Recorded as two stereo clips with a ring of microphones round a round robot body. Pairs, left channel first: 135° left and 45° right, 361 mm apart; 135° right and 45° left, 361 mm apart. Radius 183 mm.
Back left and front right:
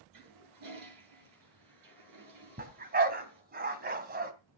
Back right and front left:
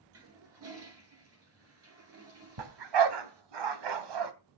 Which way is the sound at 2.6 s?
20° left.